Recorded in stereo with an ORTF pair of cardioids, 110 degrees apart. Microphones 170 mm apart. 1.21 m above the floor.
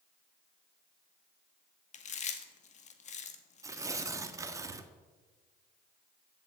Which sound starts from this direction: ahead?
Tearing paper, at 3.6 s.